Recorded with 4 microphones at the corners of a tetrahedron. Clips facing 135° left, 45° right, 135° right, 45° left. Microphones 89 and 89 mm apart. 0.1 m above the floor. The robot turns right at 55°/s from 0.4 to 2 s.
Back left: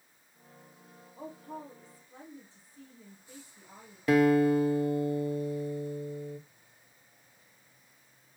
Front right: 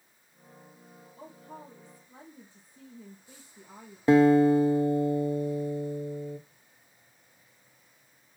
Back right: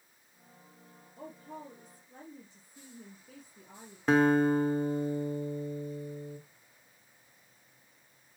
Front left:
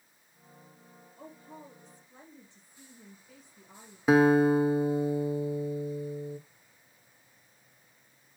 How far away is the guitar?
About 0.6 m.